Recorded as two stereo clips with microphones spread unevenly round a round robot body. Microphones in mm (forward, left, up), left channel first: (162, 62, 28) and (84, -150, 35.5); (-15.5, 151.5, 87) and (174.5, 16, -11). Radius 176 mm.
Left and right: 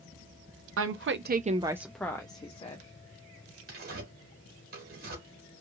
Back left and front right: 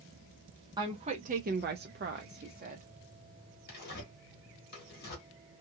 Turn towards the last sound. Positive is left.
turn(degrees=-150)